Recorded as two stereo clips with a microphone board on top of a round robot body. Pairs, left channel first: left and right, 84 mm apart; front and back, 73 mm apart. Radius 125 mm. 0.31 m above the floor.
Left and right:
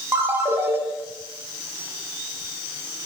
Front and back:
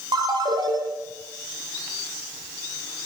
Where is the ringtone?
155° right, 5 m.